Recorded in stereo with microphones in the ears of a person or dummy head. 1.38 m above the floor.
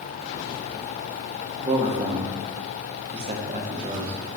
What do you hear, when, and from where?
1.6 s a man speaking: 30° right (ahead or behind), 0.7 m